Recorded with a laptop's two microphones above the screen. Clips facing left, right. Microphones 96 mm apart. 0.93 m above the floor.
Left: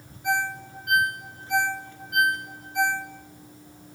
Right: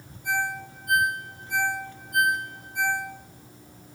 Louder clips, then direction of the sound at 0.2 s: Left 2 dB; 75° left (ahead or behind).